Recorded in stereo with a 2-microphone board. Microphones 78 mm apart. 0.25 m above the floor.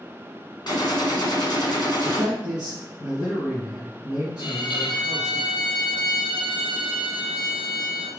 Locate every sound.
0.7 s a gunshot: 60° left (ahead or behind), 1.4 m
2.0 s a man speaking: 55° left (ahead or behind), 3 m
4.4 s a violin: 60° left (ahead or behind), 1.3 m